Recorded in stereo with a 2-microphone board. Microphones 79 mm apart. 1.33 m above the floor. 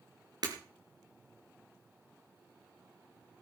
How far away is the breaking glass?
About 3.5 m.